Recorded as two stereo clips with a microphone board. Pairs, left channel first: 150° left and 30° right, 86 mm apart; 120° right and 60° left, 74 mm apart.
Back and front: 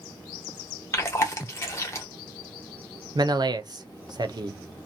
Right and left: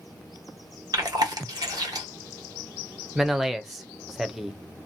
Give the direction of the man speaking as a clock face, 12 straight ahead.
1 o'clock.